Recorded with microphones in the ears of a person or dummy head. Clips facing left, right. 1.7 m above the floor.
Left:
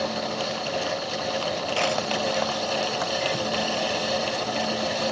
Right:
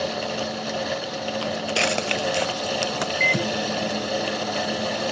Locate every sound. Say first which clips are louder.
1.4 s footsteps: right 2 dB; 25° right (ahead or behind); by 3.1 s 40° right (ahead or behind)
3.2 s a microwave: right 1 dB; 25° right (ahead or behind)